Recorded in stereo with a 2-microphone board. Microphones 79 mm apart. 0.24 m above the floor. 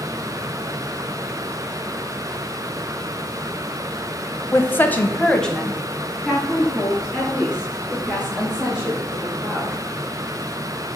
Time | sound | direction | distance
4.5 | a woman speaking | 30° left (ahead or behind) | 1.2 m